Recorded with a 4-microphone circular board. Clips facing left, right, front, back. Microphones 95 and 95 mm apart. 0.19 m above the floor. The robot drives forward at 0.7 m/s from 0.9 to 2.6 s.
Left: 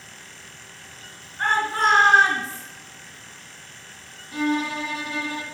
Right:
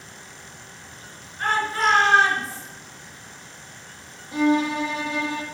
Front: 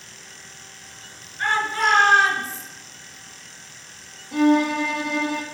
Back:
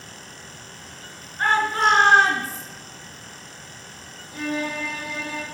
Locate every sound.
1.4 s a shout: 140° left, 2 m; by 2.6 s 155° left, 3 m
4.3 s a violin: 20° right, 1.4 m